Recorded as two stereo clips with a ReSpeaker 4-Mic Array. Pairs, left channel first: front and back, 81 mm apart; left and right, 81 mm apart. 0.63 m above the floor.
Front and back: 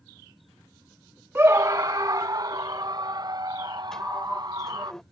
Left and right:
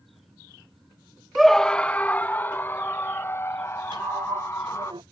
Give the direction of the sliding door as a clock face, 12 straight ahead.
3 o'clock.